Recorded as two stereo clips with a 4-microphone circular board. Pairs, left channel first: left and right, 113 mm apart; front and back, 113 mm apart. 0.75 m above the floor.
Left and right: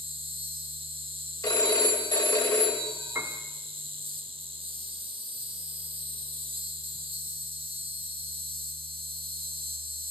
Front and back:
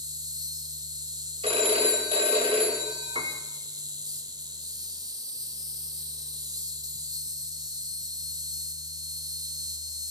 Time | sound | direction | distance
0.0 | an insect | 125° right | 0.9 m
1.4 | a phone ringing | 145° left | 3 m
3.1 | a piano | 160° right | 1.8 m